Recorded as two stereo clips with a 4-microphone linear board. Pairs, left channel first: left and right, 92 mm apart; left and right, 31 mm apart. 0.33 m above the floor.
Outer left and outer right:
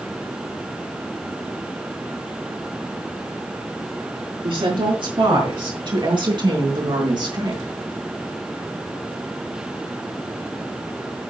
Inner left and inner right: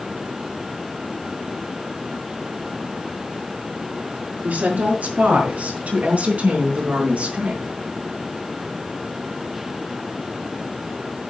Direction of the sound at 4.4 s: 60° right (ahead or behind).